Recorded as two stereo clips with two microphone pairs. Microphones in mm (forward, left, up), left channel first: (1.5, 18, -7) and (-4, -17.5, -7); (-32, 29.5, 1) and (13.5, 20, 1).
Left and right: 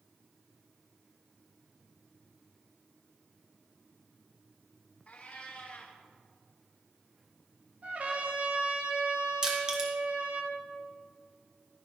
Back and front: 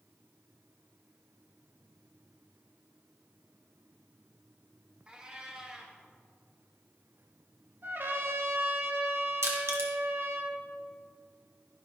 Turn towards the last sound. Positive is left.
turn(degrees=-30)